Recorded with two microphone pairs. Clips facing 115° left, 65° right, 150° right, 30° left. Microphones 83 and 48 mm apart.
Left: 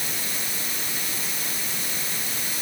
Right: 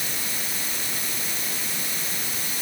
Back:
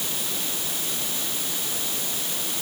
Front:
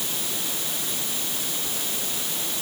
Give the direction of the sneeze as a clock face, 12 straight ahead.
I don't hear a sneeze.